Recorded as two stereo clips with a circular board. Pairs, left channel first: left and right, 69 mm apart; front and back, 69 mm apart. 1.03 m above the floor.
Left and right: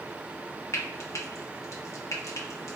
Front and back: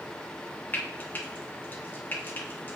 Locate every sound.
0.7 s frying: 55° left, 0.6 m